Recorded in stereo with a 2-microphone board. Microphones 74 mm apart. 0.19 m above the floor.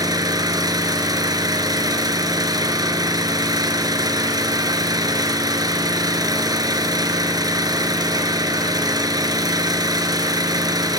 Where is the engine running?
65° right (ahead or behind), 1.7 m.